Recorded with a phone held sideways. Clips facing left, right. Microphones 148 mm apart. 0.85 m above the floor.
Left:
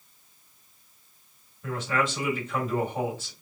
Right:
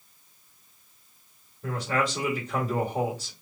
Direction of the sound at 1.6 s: 40° right (ahead or behind).